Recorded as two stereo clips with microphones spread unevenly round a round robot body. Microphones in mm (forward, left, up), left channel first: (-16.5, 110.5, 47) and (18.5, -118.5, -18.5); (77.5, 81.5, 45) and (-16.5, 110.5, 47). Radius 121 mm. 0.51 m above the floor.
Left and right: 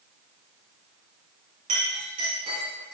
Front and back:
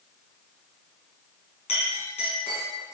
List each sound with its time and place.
1.7 s a clink: 15° right, 4 m